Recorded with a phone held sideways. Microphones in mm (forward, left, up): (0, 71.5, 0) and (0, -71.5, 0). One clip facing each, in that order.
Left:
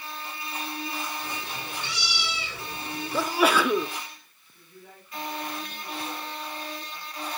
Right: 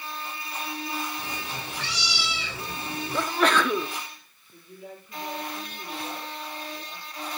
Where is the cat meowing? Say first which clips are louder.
Even; 80° right, 7 m.